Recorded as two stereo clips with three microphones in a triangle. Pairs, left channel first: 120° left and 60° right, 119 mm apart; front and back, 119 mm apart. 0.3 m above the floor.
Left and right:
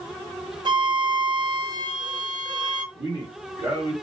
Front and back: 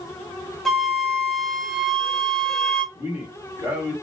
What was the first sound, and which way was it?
A flute, 85° right.